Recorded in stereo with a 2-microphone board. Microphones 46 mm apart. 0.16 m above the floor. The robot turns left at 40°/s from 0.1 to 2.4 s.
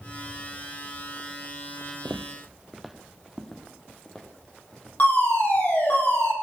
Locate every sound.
2.0 s footsteps: 60° right (ahead or behind), 0.5 m; by 5.7 s 15° left (ahead or behind), 5.5 m
5.0 s a fire alarm: 40° left (ahead or behind), 8 m